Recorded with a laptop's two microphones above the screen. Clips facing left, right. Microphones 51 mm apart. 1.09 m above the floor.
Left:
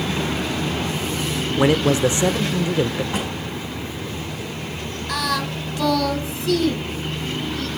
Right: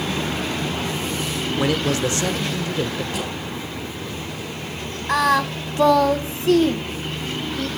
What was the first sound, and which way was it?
A man speaking, 20° left (ahead or behind).